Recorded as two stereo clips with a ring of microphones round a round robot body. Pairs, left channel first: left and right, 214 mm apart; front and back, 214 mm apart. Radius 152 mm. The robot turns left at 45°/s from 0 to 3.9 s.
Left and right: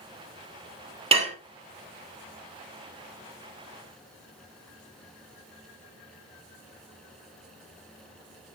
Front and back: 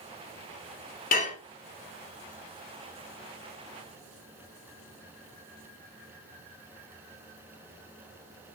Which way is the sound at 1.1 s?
35° right.